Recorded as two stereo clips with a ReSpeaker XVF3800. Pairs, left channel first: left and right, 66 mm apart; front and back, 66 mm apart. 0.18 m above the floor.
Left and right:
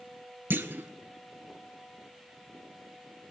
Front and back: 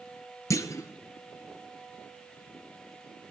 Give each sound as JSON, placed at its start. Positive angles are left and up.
{"t": 0.5, "sound": "a clunk", "azimuth_deg": -35, "distance_m": 0.7}